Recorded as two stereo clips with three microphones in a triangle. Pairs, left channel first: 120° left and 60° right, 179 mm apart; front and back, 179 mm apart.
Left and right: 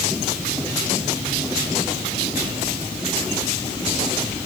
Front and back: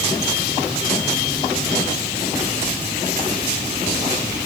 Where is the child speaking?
I don't hear a child speaking.